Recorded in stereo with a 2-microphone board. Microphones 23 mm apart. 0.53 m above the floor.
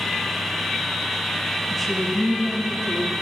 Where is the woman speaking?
10° left (ahead or behind), 0.6 m.